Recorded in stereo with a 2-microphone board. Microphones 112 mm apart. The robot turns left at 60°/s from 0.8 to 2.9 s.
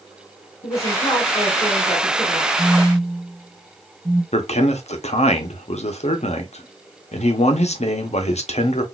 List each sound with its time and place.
0.6 s a woman speaking: 75° left, 1.3 m; by 2.5 s 25° right, 1.3 m
2.6 s a phone buzzing: 20° right (ahead or behind), 0.8 m; by 4.2 s 25° right (ahead or behind), 0.8 m
4.3 s a man speaking: 80° left, 0.8 m